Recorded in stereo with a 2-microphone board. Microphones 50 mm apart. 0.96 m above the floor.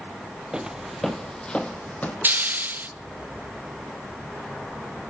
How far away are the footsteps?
About 1.8 m.